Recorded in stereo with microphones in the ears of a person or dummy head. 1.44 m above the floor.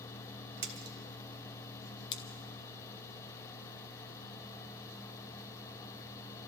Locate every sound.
0.6 s a splash: 45° right (ahead or behind), 1.1 m
2.1 s scissors: 30° left (ahead or behind), 0.8 m